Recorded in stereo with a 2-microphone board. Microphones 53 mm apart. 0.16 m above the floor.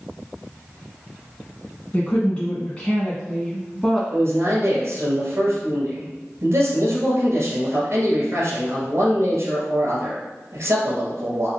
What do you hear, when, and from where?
1.9 s a woman speaking: 30° left (ahead or behind), 1.7 m; by 4.0 s centre (ahead or behind), 1.7 m
4.1 s a man speaking: 50° right (ahead or behind), 1.9 m